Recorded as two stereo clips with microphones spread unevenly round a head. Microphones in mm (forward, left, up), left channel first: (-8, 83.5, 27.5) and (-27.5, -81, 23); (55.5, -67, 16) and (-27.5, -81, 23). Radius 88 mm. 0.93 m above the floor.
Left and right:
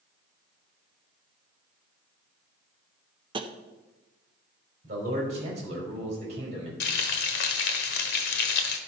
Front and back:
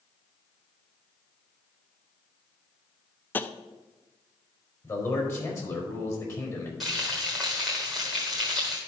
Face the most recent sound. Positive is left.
turn(degrees=100)